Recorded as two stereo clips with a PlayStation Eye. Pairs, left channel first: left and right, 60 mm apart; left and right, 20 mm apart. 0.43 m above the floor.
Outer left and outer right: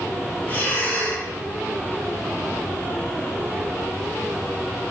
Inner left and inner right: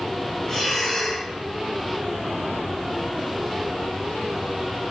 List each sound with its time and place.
0.5 s breathing: 35° left (ahead or behind), 1.2 m